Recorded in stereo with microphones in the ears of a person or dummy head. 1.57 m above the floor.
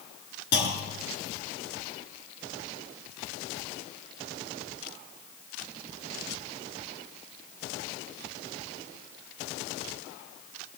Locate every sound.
0.5 s a clunk: 70° left (ahead or behind), 4.5 m